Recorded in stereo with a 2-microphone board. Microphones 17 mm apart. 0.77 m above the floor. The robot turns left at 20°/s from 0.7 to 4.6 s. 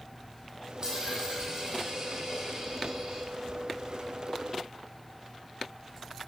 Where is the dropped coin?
30° right, 4 m; by 3.3 s 80° right, 4 m.